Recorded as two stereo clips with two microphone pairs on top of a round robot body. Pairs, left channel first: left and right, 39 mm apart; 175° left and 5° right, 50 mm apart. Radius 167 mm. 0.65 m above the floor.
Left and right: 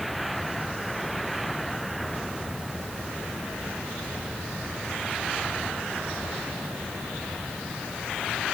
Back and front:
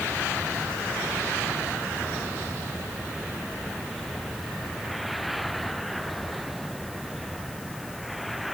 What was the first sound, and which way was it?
Only background noise.